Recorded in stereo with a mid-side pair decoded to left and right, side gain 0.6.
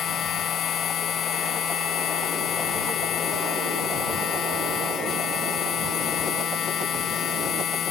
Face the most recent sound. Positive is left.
turn(degrees=50)